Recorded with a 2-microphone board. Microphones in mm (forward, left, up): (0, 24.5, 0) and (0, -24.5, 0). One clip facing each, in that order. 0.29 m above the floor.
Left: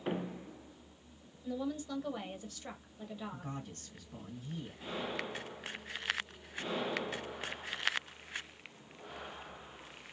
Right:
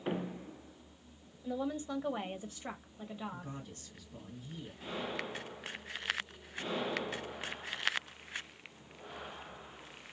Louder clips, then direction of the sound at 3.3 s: Left 1 dB; 45° left (ahead or behind).